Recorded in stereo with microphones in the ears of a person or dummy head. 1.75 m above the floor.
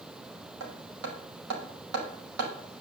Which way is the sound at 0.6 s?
75° right (ahead or behind).